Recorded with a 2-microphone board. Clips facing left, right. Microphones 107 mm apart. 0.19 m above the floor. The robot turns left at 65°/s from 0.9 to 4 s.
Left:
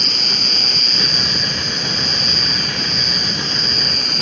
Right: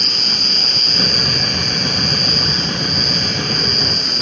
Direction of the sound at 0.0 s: 40° right.